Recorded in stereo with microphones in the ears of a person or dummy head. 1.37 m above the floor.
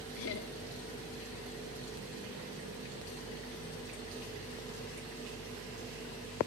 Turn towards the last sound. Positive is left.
turn(degrees=70)  # may be behind; listen again after turning